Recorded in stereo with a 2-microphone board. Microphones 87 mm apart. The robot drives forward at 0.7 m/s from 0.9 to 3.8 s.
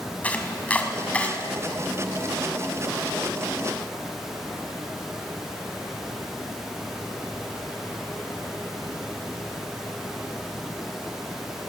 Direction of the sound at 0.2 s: 15° left (ahead or behind).